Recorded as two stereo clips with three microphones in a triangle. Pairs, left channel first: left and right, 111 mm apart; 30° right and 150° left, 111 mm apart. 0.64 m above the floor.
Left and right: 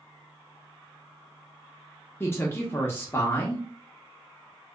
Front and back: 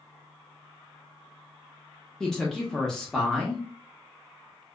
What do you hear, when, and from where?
2.2 s a woman speaking: 50° left, 0.5 m